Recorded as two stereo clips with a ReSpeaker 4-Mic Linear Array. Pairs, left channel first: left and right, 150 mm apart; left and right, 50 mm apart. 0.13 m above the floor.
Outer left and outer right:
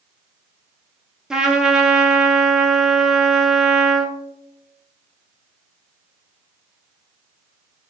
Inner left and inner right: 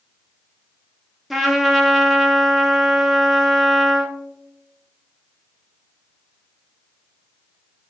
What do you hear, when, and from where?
1.3 s a trumpet: 5° right (ahead or behind), 0.6 m